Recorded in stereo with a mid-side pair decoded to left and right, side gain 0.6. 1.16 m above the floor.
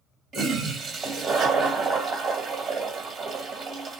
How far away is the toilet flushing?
About 2 m.